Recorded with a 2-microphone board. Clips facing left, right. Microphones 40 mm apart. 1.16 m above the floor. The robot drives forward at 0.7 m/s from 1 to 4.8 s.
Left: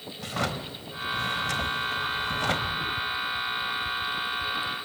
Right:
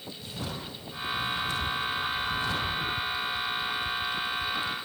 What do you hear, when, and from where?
0.2 s a drawer: 75° left (ahead or behind), 2.5 m; by 2.9 s 65° left (ahead or behind), 2.5 m